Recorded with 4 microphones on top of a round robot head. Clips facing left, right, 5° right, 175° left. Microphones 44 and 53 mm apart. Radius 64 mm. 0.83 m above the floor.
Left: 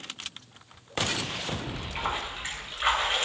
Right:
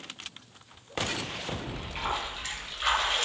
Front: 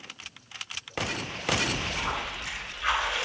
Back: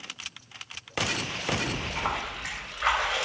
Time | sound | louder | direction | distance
1.7 | a splash | even, even | 155° left | 3.5 m